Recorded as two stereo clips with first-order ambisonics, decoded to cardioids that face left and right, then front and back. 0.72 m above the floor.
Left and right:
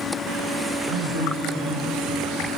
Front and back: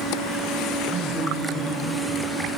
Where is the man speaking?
105° right, 8.5 m.